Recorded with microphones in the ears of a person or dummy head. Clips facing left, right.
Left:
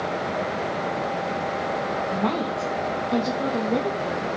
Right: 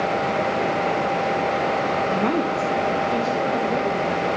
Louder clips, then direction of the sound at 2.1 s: Right 2 dB; 25° right (ahead or behind).